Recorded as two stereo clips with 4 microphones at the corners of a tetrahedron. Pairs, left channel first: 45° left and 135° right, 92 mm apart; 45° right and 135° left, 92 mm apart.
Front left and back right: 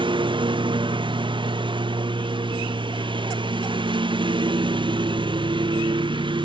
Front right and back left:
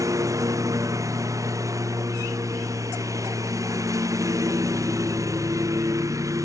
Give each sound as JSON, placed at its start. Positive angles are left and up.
{"t": 0.0, "sound": "a lawn mower", "azimuth_deg": -170}